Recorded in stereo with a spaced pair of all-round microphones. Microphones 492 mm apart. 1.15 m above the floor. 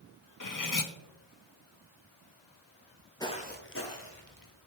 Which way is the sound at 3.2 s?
5° left (ahead or behind).